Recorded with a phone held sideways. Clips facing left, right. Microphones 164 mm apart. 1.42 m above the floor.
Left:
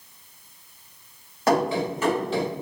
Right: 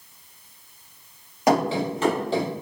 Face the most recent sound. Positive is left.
turn(degrees=-35)  # may be behind; listen again after turning